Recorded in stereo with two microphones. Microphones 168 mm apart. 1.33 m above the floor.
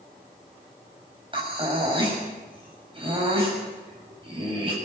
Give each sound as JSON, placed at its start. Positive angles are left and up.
{"t": 1.3, "sound": "breathing", "side_deg": -30, "distance_m": 7.0}